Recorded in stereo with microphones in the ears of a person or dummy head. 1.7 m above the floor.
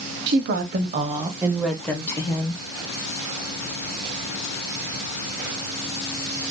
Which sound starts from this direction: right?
A woman speaking, at 0.3 s.